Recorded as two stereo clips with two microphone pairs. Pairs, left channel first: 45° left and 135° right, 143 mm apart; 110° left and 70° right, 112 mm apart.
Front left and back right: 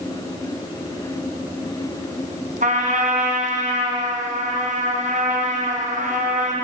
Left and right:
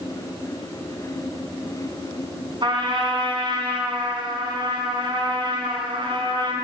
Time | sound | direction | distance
2.6 | a trumpet | 115° right | 2.5 m